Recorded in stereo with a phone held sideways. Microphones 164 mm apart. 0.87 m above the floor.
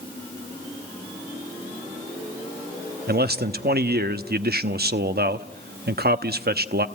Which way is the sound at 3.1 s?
75° right (ahead or behind).